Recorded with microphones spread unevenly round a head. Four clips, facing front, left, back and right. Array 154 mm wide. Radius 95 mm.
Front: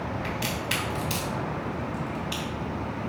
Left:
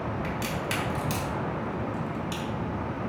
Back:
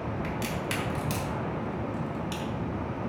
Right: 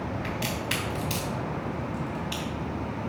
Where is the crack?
145° left, 1.3 m.